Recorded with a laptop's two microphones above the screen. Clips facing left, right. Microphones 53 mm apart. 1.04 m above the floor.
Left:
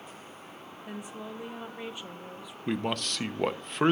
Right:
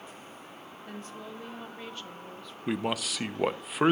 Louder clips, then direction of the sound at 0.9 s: Left 2 dB; 15° left (ahead or behind).